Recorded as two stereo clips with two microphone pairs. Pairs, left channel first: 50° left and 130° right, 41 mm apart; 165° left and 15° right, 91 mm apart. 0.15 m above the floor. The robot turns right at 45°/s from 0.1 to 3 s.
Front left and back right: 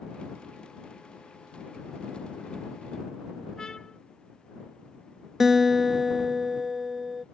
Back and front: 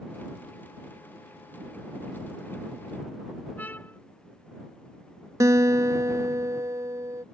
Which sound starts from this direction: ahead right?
A guitar, at 5.4 s.